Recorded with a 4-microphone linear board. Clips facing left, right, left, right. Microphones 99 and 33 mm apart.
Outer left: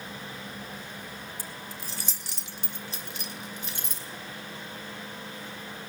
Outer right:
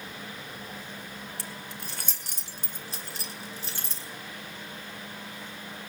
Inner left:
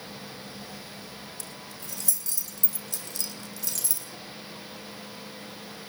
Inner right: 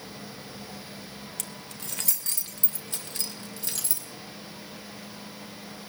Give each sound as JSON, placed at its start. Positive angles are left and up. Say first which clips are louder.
{"t": 1.4, "sound": "keys jangling", "louder": "even, inner right 1 dB", "side_deg": -80, "distance_m": 1.4}